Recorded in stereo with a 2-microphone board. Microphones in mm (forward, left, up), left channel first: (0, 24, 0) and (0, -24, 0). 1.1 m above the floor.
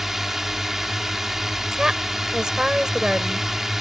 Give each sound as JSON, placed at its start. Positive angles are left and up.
{"t": 0.0, "sound": "a drone", "side_deg": -5}
{"t": 1.7, "sound": "a woman speaking", "side_deg": -10}